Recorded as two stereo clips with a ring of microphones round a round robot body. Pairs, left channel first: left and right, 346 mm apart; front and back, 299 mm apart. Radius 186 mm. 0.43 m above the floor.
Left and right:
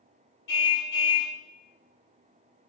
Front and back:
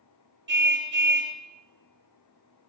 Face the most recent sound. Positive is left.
turn(degrees=125)